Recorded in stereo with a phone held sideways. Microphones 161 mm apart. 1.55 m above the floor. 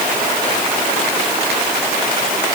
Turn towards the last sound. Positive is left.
No sound to turn to.